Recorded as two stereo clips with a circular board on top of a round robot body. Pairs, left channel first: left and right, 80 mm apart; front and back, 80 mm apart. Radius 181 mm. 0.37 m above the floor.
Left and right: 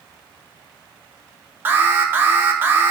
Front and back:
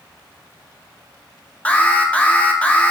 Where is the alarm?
55° right, 1.3 m.